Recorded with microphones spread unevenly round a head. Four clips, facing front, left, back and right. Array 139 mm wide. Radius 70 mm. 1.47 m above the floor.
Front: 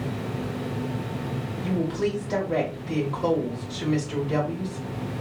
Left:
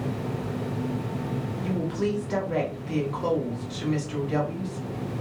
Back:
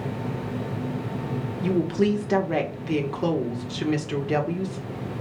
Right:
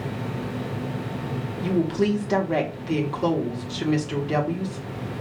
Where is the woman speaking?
140° right, 1.7 m.